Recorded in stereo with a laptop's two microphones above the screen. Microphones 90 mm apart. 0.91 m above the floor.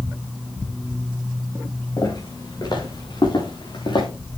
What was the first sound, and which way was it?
Footsteps, 50° left (ahead or behind).